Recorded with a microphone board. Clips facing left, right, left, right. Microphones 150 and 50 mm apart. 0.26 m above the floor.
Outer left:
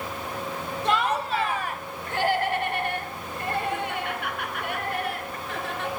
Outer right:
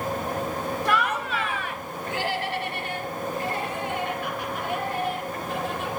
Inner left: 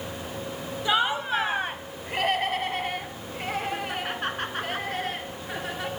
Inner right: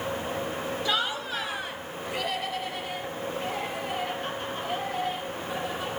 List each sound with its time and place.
0.8 s laughter: 25° left (ahead or behind), 1.1 m; by 5.9 s 75° left (ahead or behind), 3.5 m